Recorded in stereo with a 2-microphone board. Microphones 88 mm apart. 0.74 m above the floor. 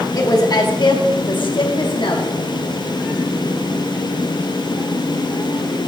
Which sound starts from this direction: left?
A woman speaking, at 0.1 s.